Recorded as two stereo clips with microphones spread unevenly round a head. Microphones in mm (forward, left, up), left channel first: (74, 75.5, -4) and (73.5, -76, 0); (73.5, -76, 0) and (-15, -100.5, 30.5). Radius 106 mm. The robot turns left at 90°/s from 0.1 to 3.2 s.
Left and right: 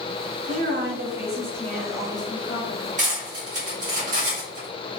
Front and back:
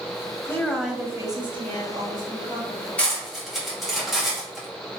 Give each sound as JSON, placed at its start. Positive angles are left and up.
{"t": 0.4, "sound": "a woman speaking", "azimuth_deg": -55, "distance_m": 0.9}
{"t": 3.0, "sound": "cutlery clinking", "azimuth_deg": -70, "distance_m": 1.7}